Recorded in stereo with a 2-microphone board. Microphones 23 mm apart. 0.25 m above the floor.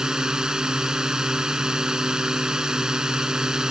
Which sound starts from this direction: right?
A drone, at 0.0 s.